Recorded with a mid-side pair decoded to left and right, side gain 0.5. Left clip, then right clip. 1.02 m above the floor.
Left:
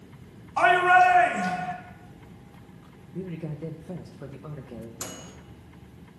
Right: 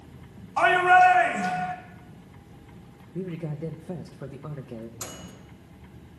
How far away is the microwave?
About 1.3 m.